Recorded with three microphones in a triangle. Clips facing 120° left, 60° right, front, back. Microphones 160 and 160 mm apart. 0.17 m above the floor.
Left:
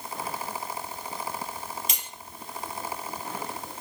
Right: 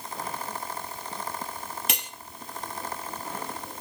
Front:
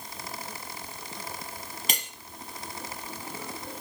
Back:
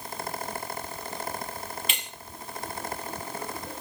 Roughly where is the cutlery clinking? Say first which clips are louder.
Right 5 dB, front 2 dB; ahead right.